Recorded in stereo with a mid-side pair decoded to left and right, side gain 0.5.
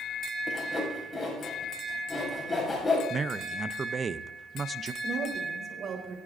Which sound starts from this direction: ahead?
Sawing, at 0.5 s.